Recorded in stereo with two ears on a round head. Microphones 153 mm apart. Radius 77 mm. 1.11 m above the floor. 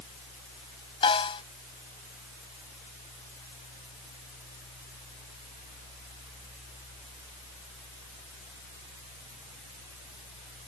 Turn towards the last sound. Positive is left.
turn(degrees=35)  # may be behind; listen again after turning